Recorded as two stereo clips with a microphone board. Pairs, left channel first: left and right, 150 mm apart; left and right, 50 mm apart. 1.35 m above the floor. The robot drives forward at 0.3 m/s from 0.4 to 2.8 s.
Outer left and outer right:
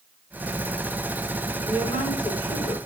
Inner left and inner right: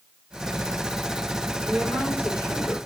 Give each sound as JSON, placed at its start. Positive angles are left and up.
{"t": 1.6, "sound": "a woman speaking", "side_deg": 40, "distance_m": 3.5}